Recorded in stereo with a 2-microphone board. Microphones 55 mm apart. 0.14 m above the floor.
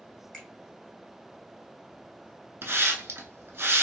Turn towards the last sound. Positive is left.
turn(degrees=-50)  # may be behind; listen again after turning